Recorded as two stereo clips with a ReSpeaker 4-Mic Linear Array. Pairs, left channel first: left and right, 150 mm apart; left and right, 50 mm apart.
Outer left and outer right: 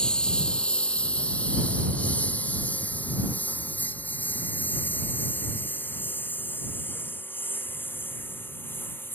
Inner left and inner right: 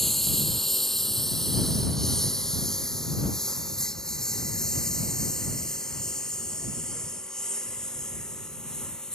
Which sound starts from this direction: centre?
A lawn mower, at 0.0 s.